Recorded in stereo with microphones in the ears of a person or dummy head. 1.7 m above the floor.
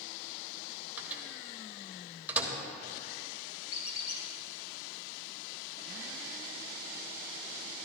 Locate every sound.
1.0 s a microwave: 10° right (ahead or behind), 1.2 m
3.7 s a squeak: 45° left (ahead or behind), 3 m